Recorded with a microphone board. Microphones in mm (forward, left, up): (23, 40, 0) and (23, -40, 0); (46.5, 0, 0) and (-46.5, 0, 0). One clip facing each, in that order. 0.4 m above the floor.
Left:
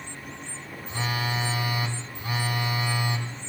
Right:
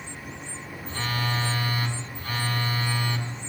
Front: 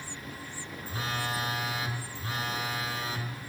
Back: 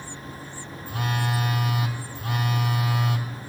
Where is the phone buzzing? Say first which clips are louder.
Even, back 6 dB; 165° left, 2.5 m.